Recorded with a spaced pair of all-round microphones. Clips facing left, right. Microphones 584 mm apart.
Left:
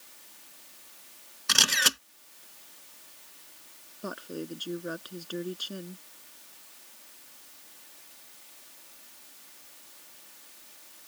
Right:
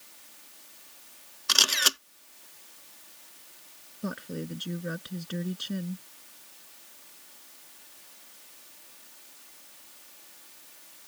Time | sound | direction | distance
1.5 | a camera shutter | 45° left (ahead or behind) | ?
4.0 | a woman speaking | 40° right (ahead or behind) | ?